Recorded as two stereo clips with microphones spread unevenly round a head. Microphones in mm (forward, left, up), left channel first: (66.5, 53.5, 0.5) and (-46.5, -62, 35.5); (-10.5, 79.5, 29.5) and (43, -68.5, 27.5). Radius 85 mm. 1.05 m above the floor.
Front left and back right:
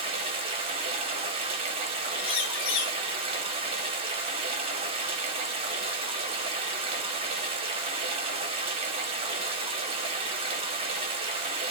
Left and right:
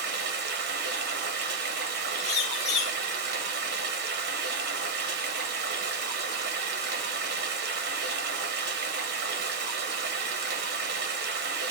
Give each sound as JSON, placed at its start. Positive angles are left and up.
{"t": 0.0, "sound": "running water", "azimuth_deg": -75, "distance_m": 0.8}
{"t": 2.2, "sound": "a bird", "azimuth_deg": 65, "distance_m": 1.7}